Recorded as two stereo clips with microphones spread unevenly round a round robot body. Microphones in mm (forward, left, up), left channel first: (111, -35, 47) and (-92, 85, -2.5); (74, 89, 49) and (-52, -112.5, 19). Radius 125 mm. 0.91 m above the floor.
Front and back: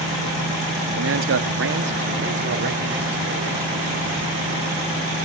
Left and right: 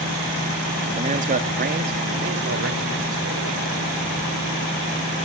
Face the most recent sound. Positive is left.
turn(degrees=-160)